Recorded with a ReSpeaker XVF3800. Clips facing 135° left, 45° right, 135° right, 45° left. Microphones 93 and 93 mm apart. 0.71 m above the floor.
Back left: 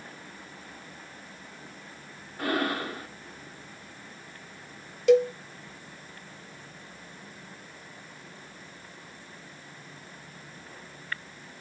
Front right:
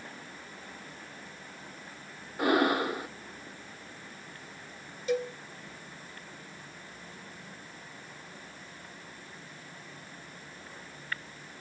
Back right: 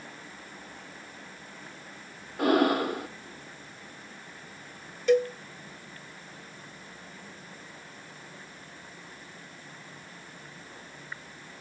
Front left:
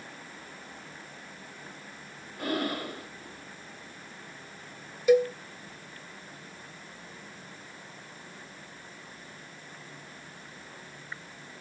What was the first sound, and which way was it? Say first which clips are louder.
Breathing: front right 4 dB, back right 8 dB; 115° right.